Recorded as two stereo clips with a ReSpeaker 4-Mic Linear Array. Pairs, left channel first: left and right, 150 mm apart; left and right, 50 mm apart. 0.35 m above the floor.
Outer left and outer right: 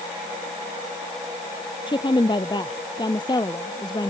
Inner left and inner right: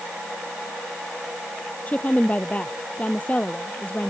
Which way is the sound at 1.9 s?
30° left (ahead or behind).